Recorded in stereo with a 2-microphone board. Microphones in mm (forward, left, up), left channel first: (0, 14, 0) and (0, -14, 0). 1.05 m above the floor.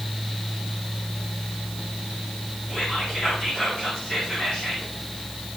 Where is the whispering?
35° left (ahead or behind), 5.5 m.